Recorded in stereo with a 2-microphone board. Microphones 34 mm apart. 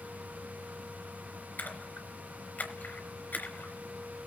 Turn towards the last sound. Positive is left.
turn(degrees=55)  # may be behind; listen again after turning